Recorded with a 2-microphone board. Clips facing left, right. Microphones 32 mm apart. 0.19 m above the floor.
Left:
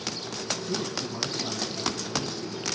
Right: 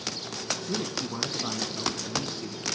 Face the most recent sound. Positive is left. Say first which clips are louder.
# even
turn(degrees=-45)  # may be behind; listen again after turning